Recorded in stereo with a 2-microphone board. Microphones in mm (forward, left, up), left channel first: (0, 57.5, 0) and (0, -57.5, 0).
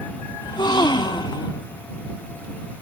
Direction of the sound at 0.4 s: 45° left (ahead or behind).